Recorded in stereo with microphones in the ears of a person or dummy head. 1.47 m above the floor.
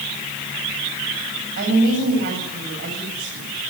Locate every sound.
1.6 s a woman speaking: 50° right (ahead or behind), 9 m